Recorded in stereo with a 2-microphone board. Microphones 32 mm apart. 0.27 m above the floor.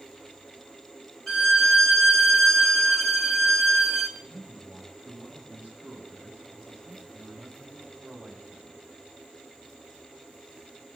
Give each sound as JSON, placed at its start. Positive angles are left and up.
{"t": 1.3, "sound": "a violin", "side_deg": 5, "distance_m": 1.1}
{"t": 4.2, "sound": "a man speaking", "side_deg": -45, "distance_m": 8.5}